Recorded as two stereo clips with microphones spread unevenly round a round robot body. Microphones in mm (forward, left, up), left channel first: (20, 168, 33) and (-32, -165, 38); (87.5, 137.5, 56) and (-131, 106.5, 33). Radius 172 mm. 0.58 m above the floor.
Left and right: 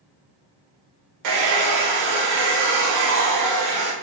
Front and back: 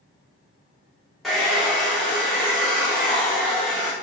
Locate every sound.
1.2 s a hair dryer: 85° right, 0.9 m